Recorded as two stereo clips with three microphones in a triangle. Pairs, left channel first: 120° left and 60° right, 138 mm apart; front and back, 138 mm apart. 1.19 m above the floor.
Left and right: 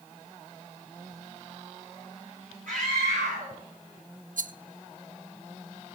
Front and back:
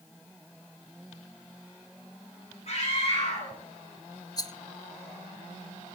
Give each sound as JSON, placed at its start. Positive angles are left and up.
{"t": 2.7, "sound": "a scream", "azimuth_deg": -40, "distance_m": 8.0}
{"t": 4.4, "sound": "a rattle", "azimuth_deg": -60, "distance_m": 0.5}